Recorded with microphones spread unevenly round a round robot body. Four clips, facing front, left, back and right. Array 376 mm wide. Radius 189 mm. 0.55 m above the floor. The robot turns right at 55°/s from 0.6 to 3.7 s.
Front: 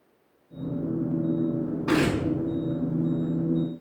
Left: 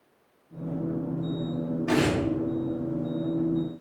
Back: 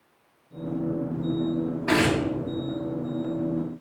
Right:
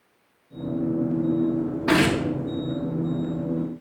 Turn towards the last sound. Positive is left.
turn(degrees=15)